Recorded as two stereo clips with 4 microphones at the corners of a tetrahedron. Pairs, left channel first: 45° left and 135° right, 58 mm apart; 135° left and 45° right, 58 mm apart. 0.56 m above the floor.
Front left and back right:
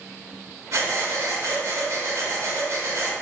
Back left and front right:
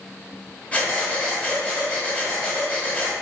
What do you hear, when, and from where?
0.7 s breathing: 160° right, 1.1 m